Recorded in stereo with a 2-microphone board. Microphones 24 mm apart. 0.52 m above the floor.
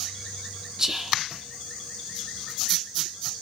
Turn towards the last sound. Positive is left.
turn(degrees=-20)  # may be behind; listen again after turning